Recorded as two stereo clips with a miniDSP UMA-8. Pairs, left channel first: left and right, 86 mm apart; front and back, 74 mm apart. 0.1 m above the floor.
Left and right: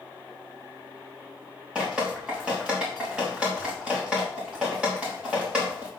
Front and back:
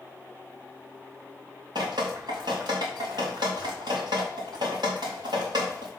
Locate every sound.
1.8 s dripping: 165° right, 4 m